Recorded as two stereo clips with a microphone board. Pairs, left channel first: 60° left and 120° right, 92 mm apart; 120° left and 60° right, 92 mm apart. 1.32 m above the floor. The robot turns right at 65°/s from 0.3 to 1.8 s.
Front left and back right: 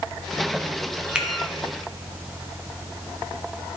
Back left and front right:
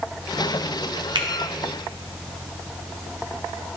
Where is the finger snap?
45° right, 0.8 m; by 1.3 s 35° right, 0.8 m.